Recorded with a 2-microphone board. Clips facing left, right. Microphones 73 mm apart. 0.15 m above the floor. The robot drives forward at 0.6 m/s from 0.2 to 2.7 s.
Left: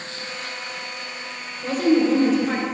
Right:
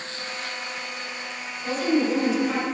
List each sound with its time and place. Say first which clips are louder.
1.6 s a woman speaking: left 5 dB; 50° left (ahead or behind), 2.0 m